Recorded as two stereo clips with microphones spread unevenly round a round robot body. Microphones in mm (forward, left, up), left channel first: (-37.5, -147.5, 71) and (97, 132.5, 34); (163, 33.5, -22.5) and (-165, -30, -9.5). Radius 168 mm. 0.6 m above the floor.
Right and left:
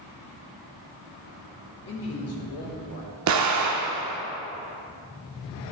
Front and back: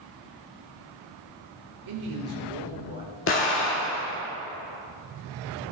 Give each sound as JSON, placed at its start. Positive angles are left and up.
{"t": 1.9, "sound": "a man speaking", "azimuth_deg": -170, "distance_m": 1.4}
{"t": 3.3, "sound": "an explosion", "azimuth_deg": 60, "distance_m": 1.2}